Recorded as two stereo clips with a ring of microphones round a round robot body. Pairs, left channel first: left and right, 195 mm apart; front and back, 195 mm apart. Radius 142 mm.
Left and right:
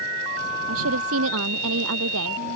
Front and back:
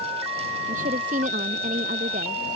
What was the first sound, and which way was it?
A woman speaking, 115° right.